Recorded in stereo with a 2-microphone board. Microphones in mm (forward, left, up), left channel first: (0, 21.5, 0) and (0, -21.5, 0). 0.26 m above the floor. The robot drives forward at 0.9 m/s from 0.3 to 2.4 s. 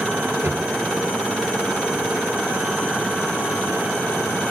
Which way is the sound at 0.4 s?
75° right (ahead or behind).